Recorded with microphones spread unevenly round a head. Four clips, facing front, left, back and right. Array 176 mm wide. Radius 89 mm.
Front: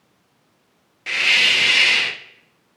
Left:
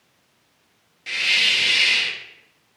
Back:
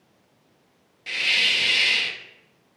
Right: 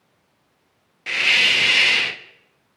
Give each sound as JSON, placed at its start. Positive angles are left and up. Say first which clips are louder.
{"t": 1.1, "sound": "a hiss", "louder": "right 4 dB, front 6 dB", "azimuth_deg": -25, "distance_m": 0.5}